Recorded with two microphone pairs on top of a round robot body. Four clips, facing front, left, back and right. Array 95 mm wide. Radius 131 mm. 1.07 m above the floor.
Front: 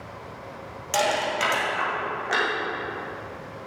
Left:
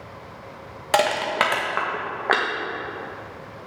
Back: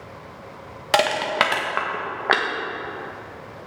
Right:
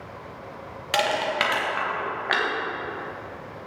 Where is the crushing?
140° left, 1.6 m.